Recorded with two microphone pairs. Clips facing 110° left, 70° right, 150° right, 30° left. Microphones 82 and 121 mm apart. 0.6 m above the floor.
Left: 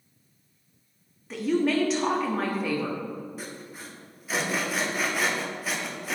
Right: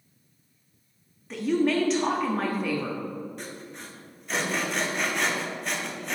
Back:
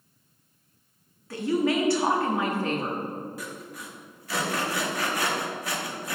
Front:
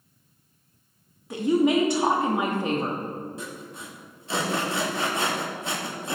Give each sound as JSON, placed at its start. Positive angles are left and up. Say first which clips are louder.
{"t": 1.3, "sound": "a woman speaking", "louder": "even, front 4 dB", "azimuth_deg": 20, "distance_m": 0.8}
{"t": 3.4, "sound": "sawing", "louder": "even, front 1 dB", "azimuth_deg": 30, "distance_m": 0.9}